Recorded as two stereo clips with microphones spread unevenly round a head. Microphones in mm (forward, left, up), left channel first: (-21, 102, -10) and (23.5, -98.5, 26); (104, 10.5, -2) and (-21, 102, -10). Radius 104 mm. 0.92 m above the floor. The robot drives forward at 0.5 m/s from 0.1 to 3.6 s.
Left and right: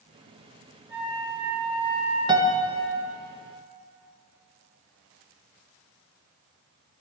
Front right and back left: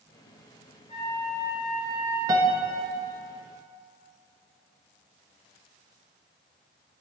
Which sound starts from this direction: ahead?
A flute, at 0.9 s.